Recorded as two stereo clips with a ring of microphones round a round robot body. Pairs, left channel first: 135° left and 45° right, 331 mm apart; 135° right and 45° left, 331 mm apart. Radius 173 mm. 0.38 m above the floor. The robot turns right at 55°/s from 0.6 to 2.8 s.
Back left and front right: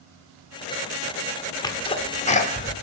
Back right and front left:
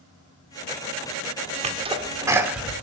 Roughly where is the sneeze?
Left.